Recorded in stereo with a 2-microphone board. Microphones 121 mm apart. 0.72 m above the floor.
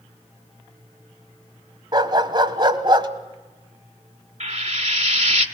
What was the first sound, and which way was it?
A dog barking, 40° right (ahead or behind).